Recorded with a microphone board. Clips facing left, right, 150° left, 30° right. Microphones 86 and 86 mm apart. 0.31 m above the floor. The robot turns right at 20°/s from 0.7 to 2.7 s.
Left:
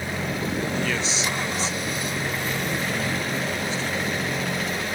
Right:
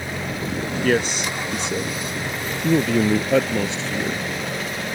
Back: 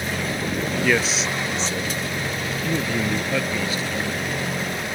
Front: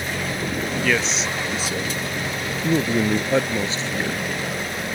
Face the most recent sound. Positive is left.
turn(degrees=-90)